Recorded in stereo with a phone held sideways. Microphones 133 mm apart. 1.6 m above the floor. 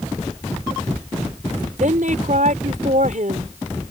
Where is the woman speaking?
70° right (ahead or behind).